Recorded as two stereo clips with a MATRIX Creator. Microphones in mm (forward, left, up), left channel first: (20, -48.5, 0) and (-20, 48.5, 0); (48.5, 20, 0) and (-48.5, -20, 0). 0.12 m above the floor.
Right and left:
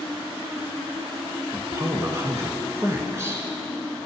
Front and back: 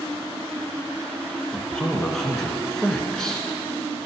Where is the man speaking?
105° left, 1.3 m.